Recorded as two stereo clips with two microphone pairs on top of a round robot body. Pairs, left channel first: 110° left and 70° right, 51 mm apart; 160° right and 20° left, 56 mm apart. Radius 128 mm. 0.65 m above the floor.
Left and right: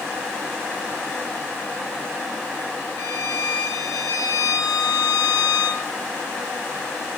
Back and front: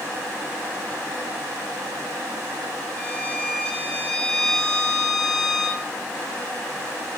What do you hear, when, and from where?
3.0 s a violin: 125° left, 2.5 m